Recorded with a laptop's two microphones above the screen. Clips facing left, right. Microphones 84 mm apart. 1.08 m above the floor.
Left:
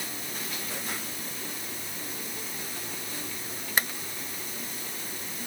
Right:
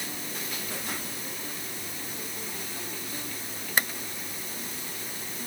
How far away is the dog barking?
No dog barking in this recording.